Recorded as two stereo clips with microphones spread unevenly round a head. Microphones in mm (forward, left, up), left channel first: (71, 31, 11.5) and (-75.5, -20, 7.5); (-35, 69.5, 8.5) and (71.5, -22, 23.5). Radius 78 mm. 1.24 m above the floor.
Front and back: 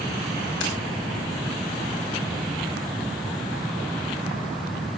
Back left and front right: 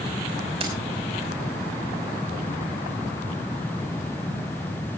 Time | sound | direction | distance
0.6 | keys jangling | 5° left | 5.5 m